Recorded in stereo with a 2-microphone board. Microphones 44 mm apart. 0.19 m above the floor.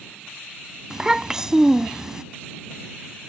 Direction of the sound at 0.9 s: 15° right (ahead or behind).